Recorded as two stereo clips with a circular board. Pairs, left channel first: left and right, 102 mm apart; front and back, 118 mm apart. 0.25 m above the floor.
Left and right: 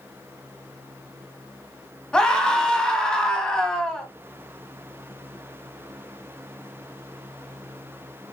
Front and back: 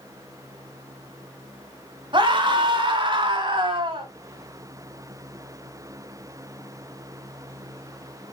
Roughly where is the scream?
Behind.